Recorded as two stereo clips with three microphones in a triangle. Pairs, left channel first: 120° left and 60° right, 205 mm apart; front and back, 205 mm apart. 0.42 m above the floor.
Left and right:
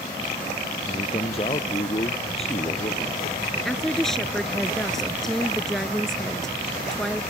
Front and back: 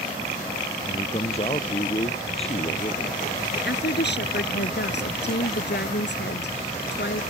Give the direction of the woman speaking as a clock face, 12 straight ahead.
11 o'clock.